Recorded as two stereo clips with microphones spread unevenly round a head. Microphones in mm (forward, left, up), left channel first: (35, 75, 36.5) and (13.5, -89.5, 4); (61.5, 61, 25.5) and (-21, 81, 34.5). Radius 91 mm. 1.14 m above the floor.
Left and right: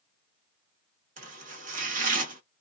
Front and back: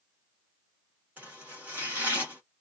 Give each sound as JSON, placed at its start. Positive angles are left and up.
{"t": 1.2, "sound": "chopping", "azimuth_deg": -135, "distance_m": 0.9}